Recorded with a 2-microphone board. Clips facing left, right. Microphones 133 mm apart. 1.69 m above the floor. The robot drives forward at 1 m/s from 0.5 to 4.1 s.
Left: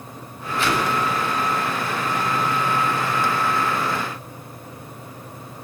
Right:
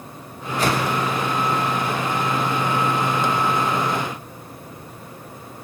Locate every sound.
0.6 s a whoosh: 40° right (ahead or behind), 7.5 m; by 0.9 s 45° right (ahead or behind), 7 m